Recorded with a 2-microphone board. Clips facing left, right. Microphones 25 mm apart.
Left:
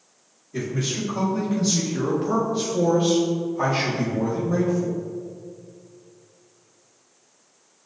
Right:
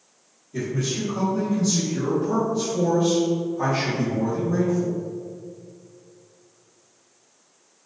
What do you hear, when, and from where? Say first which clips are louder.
0.5 s a man speaking: even; 15° left (ahead or behind), 1.4 m; by 5.0 s 45° left (ahead or behind), 1.7 m